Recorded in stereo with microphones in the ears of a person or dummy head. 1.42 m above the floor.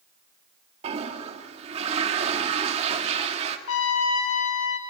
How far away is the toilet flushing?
About 2 m.